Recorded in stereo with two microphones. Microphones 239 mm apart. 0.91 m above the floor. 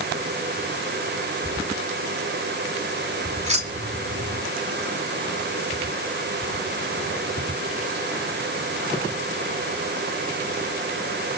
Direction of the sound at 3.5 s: 30° right (ahead or behind).